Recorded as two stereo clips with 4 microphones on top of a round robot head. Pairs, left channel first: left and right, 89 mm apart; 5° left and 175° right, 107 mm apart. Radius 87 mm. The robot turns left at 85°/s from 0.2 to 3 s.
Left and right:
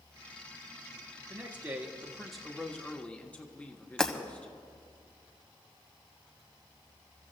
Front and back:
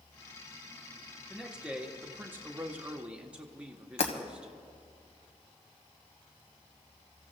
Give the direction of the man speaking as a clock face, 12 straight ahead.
3 o'clock.